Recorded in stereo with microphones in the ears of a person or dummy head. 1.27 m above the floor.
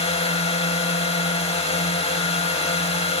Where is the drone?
30° left (ahead or behind).